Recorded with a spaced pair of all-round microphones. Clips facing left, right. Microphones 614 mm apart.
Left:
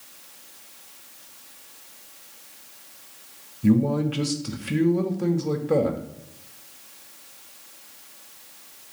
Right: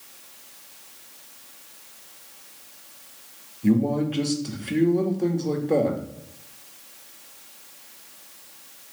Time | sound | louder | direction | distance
3.6 | a man speaking | left 1 dB | 40° left (ahead or behind) | 0.5 m